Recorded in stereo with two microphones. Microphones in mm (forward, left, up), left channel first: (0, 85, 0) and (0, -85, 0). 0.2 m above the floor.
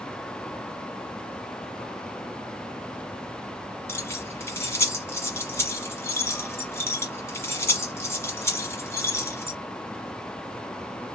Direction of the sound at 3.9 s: 15° left (ahead or behind).